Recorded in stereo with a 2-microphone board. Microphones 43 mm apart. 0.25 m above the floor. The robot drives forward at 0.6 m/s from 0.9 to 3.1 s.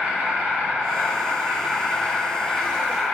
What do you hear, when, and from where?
0.0 s an insect: 50° right (ahead or behind), 1.3 m; by 3.1 s 25° right (ahead or behind), 2.5 m